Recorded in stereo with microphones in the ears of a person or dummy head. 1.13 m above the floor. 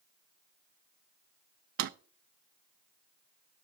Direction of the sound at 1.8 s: 60° right (ahead or behind).